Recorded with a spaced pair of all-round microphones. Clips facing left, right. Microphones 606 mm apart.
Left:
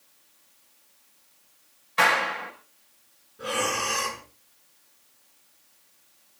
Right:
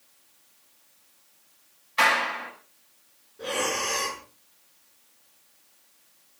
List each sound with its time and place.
2.0 s a clap: 85° left, 5.5 m
3.4 s breathing: 40° left (ahead or behind), 5.5 m